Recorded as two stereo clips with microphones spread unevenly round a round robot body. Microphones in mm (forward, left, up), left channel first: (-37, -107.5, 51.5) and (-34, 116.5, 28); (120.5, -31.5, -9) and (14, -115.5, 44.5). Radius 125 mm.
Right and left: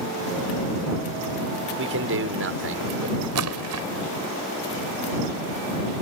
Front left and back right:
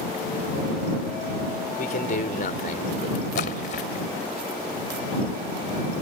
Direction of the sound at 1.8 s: 55° left.